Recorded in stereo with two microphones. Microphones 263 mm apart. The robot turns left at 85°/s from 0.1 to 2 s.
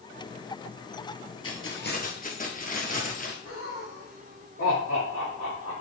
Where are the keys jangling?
85° left, 1.7 m; by 3.4 s 40° left, 1.7 m.